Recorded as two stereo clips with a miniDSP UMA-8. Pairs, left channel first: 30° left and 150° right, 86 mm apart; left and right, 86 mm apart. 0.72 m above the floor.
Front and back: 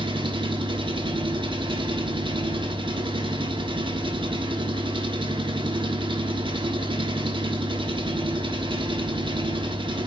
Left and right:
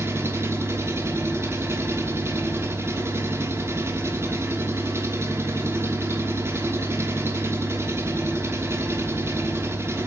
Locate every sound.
0.0 s an engine running: 150° right, 1.1 m